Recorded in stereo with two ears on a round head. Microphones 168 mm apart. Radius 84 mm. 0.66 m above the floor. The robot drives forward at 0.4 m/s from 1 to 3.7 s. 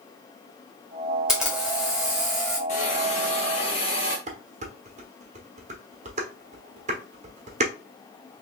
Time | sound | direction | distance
1.3 | a camera shutter | 5° right (ahead or behind) | 1.6 m
2.7 | a hiss | 40° left (ahead or behind) | 1.5 m
4.3 | dishes clattering | 40° right (ahead or behind) | 1.0 m